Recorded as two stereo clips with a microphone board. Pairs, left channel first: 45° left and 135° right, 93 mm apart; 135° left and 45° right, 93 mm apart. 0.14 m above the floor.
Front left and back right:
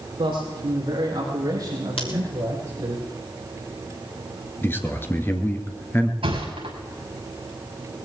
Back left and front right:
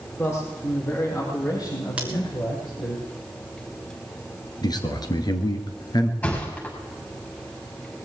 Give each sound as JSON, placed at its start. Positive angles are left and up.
{"t": 0.2, "sound": "a man speaking", "azimuth_deg": -165, "distance_m": 6.5}
{"t": 2.0, "sound": "scissors", "azimuth_deg": 30, "distance_m": 2.5}
{"t": 4.6, "sound": "a man speaking", "azimuth_deg": 105, "distance_m": 2.0}
{"t": 6.2, "sound": "a thud", "azimuth_deg": -155, "distance_m": 6.5}